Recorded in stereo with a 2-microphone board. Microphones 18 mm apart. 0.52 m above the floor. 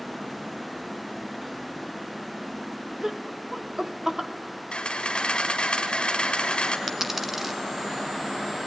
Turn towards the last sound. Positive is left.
turn(degrees=-15)  # may be behind; listen again after turning